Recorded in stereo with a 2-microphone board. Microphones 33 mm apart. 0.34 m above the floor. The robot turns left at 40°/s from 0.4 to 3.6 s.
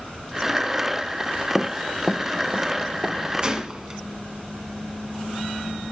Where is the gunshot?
30° right (ahead or behind), 1.8 m; by 4.0 s 25° right (ahead or behind), 1.8 m.